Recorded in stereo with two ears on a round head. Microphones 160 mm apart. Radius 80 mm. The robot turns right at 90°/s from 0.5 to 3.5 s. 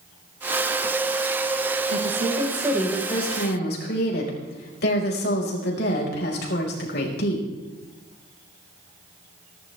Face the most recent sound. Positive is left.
turn(degrees=60)